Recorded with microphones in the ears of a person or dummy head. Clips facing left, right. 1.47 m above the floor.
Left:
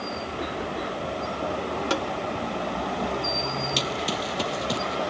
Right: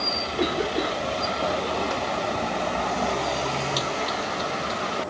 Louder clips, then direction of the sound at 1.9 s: Left 1 dB; 70° left (ahead or behind).